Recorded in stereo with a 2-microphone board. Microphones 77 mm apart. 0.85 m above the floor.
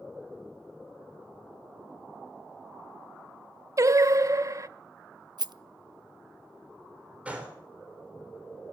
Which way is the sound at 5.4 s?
60° right (ahead or behind).